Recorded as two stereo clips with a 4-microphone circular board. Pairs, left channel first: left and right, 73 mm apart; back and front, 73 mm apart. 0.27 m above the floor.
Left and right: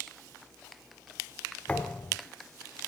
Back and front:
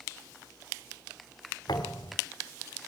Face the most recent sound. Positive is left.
turn(degrees=160)